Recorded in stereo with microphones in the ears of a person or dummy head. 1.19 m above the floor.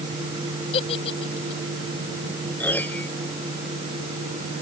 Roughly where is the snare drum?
No snare drum in this recording.